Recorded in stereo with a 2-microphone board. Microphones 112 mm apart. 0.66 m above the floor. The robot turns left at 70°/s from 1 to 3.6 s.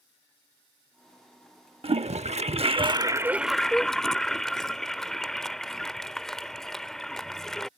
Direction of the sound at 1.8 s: 60° right (ahead or behind).